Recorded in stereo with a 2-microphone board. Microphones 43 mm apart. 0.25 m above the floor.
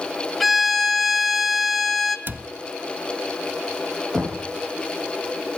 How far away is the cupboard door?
About 0.9 m.